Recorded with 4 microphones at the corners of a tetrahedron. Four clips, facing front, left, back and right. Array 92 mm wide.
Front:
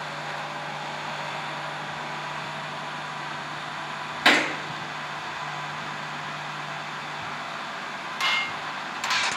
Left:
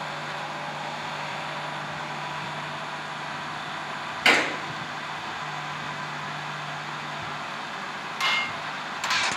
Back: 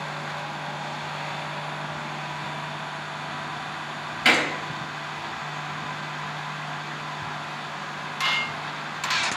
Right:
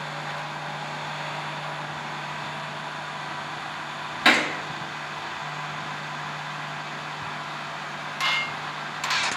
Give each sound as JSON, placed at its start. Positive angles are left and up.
{"t": 4.2, "sound": "a gunshot", "azimuth_deg": -40, "distance_m": 1.4}